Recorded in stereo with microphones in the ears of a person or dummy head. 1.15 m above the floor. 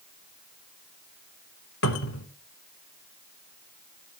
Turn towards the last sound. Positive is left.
turn(degrees=65)  # may be behind; listen again after turning